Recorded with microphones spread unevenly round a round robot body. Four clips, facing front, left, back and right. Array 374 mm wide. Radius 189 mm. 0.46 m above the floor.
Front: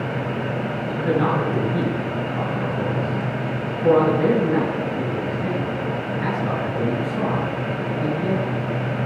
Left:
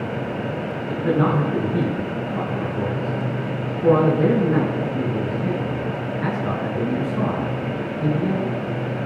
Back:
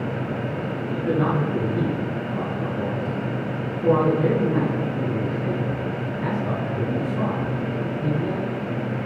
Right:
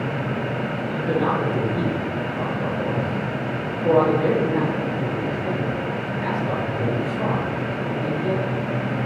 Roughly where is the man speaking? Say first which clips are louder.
Left 3 dB, front 2 dB; left.